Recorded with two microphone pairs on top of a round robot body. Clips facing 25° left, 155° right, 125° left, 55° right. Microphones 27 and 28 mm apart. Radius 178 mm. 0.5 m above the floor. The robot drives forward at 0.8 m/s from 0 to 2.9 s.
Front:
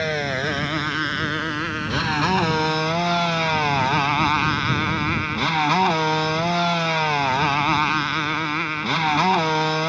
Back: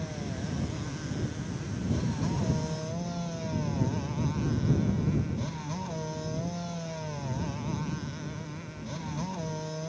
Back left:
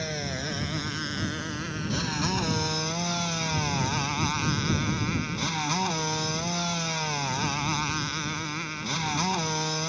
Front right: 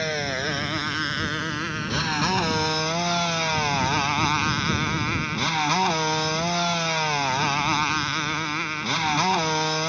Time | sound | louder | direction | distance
0.0 | a motorcycle | front 14 dB, front right 6 dB | 5° left | ?